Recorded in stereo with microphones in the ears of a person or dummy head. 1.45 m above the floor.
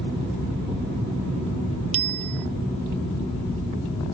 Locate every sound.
1.9 s a bicycle bell: 30° right (ahead or behind)